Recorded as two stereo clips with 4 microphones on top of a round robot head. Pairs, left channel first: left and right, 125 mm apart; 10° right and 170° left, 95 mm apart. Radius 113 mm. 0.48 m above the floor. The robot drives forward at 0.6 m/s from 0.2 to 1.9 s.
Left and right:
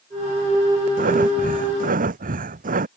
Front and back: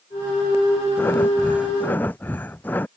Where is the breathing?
85° right.